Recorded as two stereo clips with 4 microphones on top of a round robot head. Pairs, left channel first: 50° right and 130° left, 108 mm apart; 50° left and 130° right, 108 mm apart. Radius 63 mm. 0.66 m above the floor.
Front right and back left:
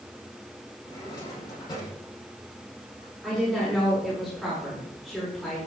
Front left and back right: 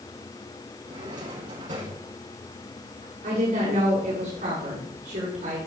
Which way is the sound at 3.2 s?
135° right.